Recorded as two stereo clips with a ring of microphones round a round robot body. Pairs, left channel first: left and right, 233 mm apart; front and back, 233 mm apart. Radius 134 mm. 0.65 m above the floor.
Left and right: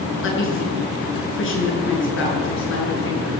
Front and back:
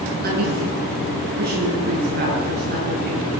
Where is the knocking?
I don't hear knocking.